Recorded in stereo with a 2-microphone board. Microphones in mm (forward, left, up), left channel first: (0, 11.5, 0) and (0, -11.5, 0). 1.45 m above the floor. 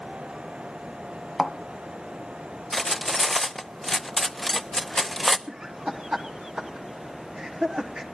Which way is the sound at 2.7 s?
15° left (ahead or behind).